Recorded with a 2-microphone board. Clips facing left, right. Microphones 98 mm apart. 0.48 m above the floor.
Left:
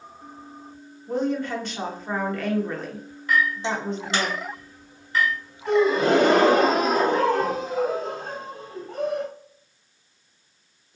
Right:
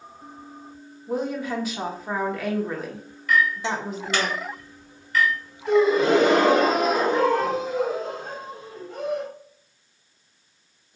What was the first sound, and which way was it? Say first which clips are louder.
A woman speaking: left 2 dB; 5° right (ahead or behind).